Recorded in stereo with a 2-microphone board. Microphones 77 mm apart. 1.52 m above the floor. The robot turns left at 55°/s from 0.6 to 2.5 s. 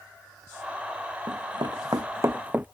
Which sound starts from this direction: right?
Running footsteps, at 1.3 s.